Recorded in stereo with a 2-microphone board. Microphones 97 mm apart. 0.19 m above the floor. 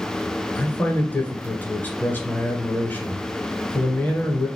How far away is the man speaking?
About 2.0 m.